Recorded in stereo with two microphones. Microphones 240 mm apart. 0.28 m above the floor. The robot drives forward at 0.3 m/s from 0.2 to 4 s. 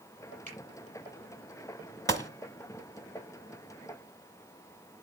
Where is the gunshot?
10° left (ahead or behind), 1.0 m; by 2.3 s 15° left (ahead or behind), 1.0 m.